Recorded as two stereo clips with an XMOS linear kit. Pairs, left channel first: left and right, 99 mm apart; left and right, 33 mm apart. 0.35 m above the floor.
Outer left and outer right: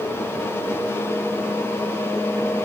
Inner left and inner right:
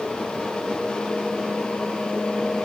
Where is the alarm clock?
I don't hear an alarm clock.